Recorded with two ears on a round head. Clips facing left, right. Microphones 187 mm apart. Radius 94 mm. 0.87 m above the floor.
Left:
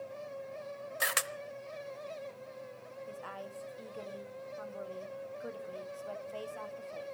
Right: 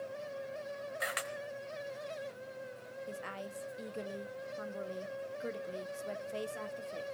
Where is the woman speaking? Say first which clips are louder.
Right 1 dB; 25° right (ahead or behind), 1.6 m.